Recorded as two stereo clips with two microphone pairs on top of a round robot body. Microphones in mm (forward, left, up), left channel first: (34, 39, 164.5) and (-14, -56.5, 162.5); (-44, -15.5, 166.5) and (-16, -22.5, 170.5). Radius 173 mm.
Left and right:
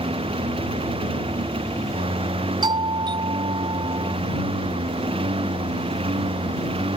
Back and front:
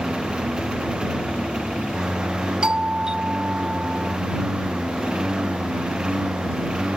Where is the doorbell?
75° right.